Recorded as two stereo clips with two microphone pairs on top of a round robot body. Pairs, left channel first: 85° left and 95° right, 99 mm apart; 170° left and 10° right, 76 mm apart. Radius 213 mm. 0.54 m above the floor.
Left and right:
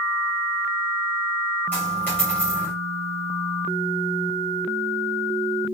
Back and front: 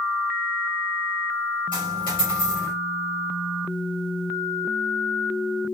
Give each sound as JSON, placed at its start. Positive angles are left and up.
{"t": 1.7, "sound": "a dropped coin", "azimuth_deg": 160, "distance_m": 4.0}